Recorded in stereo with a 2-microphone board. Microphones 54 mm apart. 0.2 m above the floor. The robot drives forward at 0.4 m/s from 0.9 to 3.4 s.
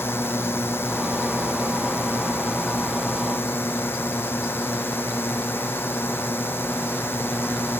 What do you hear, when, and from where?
0.0 s a drone: 45° left (ahead or behind); by 7.8 s 40° left (ahead or behind)